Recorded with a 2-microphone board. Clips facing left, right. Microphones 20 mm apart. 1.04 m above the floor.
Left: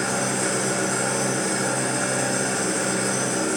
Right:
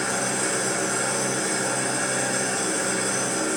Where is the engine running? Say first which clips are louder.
Left 1 dB; 70° left (ahead or behind), 1.6 m.